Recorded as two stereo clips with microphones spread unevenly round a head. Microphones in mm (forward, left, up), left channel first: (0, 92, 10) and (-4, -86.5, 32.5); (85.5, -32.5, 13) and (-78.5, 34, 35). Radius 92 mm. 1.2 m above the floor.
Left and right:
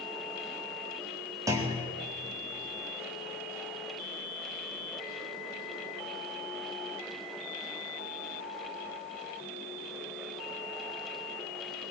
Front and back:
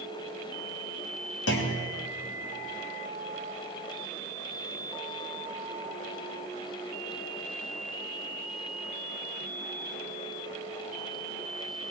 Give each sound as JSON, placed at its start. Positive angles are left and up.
{"t": 1.5, "sound": "a clunk", "azimuth_deg": -20, "distance_m": 3.5}